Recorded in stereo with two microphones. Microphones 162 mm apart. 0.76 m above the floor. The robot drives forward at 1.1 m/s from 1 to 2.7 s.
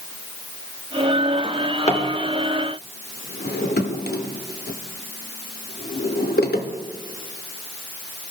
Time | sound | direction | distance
1.4 | a drawer | 30° left (ahead or behind) | 1.4 m